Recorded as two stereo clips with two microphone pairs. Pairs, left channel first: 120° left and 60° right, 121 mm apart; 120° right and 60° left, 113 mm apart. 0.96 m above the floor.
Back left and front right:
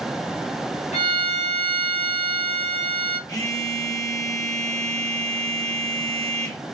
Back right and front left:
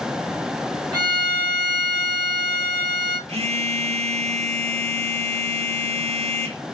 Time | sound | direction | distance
0.9 | a violin | 105° left | 1.8 m
3.3 | a phone buzzing | 65° left | 1.3 m